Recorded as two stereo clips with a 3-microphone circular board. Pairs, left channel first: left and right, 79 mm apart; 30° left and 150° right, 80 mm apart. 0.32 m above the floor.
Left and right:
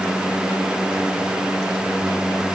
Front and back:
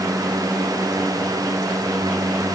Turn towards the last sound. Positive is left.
No sound to turn to.